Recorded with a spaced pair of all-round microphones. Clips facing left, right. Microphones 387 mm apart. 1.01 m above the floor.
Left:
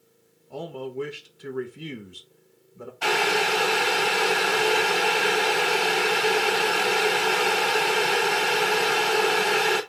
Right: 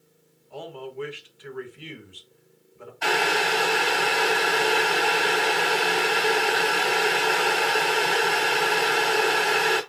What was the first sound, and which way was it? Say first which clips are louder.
A man speaking: left 4 dB; 55° left (ahead or behind).